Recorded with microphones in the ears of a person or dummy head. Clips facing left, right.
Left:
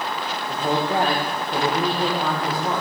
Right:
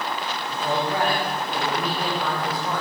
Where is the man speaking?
25° left (ahead or behind), 1.4 m.